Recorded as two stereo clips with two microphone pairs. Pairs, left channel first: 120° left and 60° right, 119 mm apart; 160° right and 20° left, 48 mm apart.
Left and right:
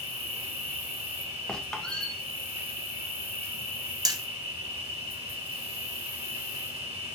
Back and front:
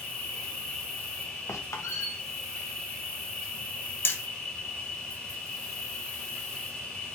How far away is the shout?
No shout in this recording.